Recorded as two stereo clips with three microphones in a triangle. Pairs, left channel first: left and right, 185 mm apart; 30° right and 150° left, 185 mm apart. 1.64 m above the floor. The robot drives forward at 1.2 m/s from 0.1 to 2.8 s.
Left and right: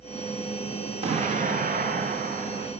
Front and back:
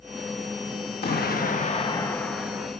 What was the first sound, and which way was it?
An explosion, 40° right.